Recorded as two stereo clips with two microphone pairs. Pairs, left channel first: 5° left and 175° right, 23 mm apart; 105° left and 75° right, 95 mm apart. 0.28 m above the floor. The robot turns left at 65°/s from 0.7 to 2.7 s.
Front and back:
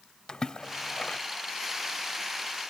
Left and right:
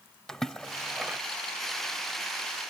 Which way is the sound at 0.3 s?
25° left.